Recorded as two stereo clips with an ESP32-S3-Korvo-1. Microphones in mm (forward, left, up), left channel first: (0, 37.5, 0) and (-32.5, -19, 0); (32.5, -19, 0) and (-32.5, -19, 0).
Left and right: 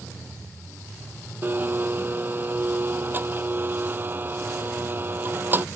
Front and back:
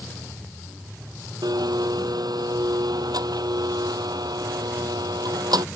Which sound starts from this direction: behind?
A blender, at 1.4 s.